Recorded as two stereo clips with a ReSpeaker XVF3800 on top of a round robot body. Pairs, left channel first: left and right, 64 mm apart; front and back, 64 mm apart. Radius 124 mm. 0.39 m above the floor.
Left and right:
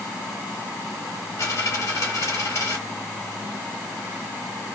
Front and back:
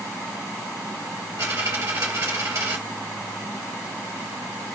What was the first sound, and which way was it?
A dropped coin, 135° left.